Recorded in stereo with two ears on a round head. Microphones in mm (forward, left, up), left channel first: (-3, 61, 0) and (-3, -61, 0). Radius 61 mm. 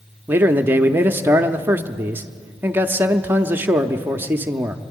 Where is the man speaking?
15° right (ahead or behind), 0.7 m.